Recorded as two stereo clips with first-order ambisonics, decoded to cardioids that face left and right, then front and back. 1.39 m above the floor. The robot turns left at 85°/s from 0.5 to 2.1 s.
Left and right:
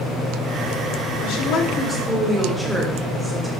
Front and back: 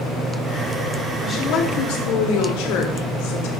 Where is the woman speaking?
70° left, 1.8 m; by 3.5 s 5° right, 1.8 m.